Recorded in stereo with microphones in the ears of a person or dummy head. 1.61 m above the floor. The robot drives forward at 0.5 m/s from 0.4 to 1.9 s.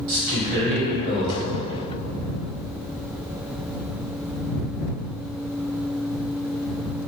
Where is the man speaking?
60° right (ahead or behind), 1.3 m; by 1.5 s 70° right (ahead or behind), 1.2 m.